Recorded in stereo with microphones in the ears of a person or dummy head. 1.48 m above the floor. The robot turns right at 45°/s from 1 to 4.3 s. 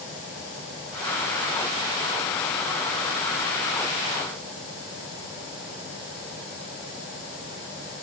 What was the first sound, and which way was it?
Only background noise.